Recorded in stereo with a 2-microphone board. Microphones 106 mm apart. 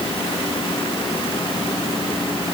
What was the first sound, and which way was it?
Only background noise.